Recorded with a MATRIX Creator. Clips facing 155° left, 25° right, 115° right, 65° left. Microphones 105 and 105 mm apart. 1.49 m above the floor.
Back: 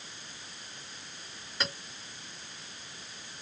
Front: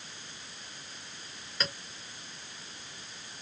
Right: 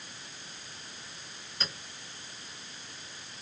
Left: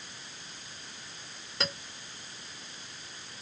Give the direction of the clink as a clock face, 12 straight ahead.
9 o'clock.